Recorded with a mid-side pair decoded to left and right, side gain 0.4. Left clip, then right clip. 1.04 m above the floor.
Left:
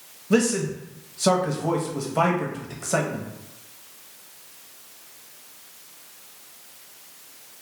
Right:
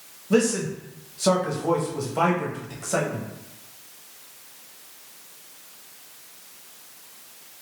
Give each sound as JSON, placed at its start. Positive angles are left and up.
{"t": 0.3, "sound": "a man speaking", "azimuth_deg": 25, "distance_m": 0.8}